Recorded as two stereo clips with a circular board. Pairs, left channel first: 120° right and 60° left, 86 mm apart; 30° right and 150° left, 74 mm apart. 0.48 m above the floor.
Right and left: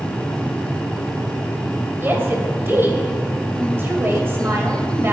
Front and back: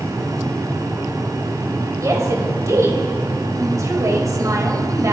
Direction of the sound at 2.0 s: 120° left.